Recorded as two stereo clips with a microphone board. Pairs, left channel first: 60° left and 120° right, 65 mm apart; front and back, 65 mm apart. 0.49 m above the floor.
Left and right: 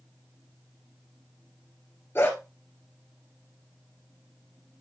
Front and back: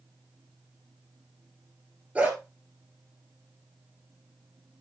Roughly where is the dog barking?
Behind left.